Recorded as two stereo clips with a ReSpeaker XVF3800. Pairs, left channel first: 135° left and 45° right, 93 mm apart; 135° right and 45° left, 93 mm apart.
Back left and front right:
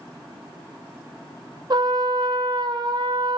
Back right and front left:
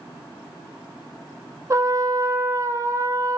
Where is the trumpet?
5° right, 0.6 m.